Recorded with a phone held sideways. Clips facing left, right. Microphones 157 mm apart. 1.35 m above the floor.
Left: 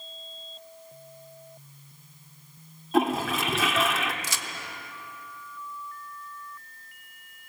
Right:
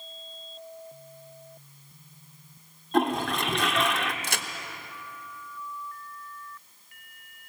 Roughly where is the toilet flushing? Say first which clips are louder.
Left 1 dB; centre.